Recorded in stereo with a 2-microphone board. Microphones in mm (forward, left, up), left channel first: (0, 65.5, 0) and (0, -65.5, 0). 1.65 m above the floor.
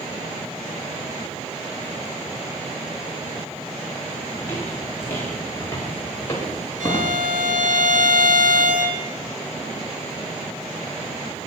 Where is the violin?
75° right (ahead or behind), 2.5 m.